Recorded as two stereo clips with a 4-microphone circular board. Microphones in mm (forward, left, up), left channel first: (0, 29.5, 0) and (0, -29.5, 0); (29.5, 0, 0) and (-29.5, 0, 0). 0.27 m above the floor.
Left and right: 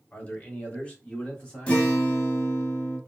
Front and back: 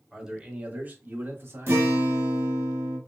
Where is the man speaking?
100° left, 1.0 m; by 1.9 s 160° left, 1.5 m.